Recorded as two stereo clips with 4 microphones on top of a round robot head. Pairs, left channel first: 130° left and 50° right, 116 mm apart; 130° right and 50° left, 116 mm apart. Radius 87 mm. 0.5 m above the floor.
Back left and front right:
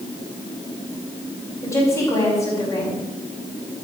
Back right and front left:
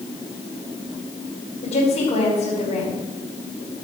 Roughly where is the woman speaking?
Behind.